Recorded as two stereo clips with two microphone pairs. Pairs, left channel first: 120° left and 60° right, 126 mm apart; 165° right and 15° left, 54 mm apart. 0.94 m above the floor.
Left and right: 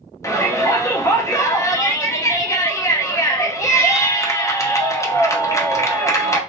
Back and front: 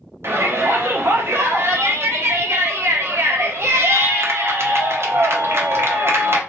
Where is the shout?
50° left, 0.9 m.